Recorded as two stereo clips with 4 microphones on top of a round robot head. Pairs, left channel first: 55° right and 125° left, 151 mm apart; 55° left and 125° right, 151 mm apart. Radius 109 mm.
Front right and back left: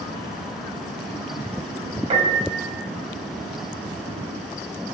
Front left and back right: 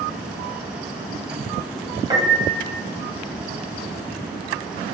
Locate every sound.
2.1 s a piano: 170° left, 1.2 m